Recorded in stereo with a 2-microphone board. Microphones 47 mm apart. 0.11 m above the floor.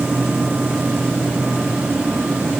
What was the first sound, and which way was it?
Only background noise.